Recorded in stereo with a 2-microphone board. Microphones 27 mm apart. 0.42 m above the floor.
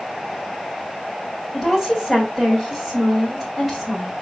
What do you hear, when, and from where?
1.5 s a woman speaking: 5° right (ahead or behind), 2 m